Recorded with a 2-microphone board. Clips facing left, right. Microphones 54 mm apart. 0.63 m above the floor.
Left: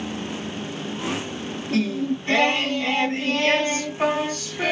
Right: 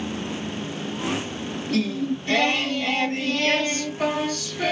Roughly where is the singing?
Left.